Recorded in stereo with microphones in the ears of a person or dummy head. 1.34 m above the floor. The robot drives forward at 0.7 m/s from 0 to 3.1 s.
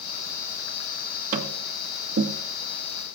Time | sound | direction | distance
1.3 | tapping | 45° right (ahead or behind) | 1.9 m